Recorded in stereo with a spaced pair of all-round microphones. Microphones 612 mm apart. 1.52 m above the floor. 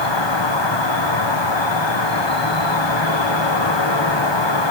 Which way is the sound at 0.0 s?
45° left (ahead or behind).